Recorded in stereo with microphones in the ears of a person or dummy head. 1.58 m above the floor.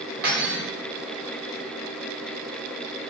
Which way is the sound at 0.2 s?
55° right (ahead or behind).